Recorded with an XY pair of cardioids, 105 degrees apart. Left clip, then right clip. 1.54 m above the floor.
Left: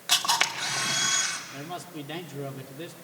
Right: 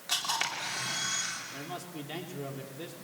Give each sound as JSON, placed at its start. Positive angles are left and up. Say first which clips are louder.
{"t": 0.1, "sound": "a camera shutter", "louder": "left 7 dB", "azimuth_deg": 50, "distance_m": 3.0}
{"t": 1.5, "sound": "a man speaking", "louder": "left 3 dB", "azimuth_deg": 20, "distance_m": 3.5}